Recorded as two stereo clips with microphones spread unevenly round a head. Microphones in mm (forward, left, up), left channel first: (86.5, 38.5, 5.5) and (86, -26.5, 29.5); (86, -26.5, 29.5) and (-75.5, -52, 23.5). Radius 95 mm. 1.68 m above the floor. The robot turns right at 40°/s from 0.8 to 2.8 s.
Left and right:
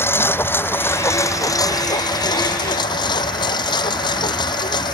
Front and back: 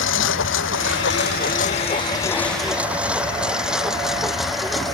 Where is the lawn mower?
35° left; by 5.0 s 100° left.